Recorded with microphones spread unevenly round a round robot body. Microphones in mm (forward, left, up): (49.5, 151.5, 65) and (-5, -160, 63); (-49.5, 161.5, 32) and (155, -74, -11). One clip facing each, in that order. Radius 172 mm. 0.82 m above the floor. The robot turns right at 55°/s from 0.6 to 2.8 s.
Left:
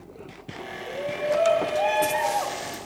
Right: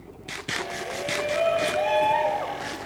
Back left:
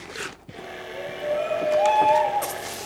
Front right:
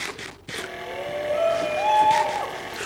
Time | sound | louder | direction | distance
0.9 | a shout | left 4 dB, front right 1 dB | 50° right | 5 m